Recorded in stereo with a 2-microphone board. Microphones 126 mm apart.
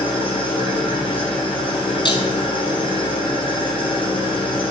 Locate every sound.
0.0 s an engine running: 45° left (ahead or behind), 1.1 m
2.0 s breaking glass: 40° left (ahead or behind), 0.6 m